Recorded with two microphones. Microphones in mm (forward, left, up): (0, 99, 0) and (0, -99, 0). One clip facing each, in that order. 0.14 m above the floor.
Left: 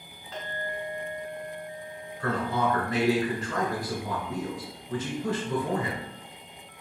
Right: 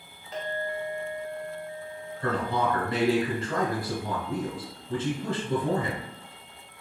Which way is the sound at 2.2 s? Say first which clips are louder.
Even; 30° right (ahead or behind).